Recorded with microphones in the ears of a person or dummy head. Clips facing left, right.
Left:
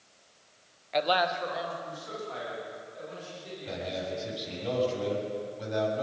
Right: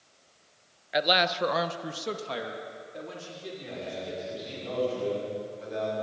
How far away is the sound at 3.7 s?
About 7.5 m.